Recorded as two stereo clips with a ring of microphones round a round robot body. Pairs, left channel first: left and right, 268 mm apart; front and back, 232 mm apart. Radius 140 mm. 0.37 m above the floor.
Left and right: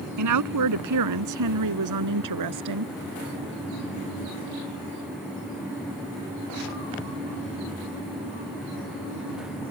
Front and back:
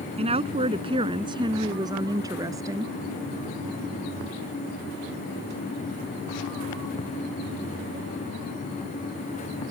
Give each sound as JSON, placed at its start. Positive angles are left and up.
{"t": 0.2, "sound": "a woman speaking", "azimuth_deg": -110}